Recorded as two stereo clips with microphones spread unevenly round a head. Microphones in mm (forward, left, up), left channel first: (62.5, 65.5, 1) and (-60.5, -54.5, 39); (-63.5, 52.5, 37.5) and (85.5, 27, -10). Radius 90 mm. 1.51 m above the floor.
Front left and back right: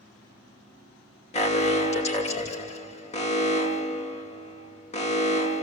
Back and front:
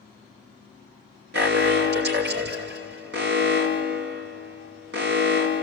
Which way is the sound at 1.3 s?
10° right.